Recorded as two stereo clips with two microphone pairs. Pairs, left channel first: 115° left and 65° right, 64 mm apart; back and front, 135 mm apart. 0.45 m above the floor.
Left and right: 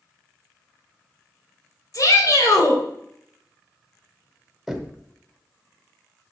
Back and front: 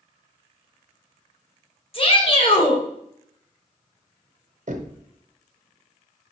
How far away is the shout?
About 2.5 m.